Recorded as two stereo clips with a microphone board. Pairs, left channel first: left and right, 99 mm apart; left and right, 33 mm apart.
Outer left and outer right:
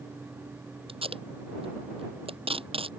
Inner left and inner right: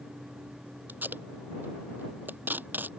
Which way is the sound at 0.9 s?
80° right.